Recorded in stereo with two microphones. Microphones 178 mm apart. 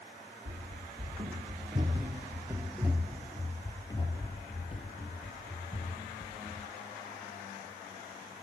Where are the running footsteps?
50° right (ahead or behind), 1.8 m; by 6.7 s 50° left (ahead or behind), 2.5 m.